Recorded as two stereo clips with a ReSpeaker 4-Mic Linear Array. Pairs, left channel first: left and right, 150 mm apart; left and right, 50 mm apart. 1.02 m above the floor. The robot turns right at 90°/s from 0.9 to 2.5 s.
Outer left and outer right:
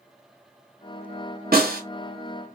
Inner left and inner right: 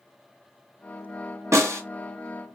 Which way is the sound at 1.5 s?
70° right (ahead or behind).